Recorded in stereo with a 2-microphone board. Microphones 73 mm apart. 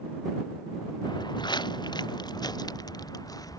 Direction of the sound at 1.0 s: 75° left (ahead or behind).